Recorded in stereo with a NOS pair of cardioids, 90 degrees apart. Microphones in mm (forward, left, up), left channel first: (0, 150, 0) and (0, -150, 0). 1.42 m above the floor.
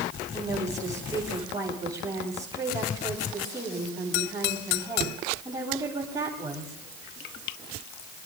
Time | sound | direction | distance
0.3 | a woman speaking | 10° right | 8.5 m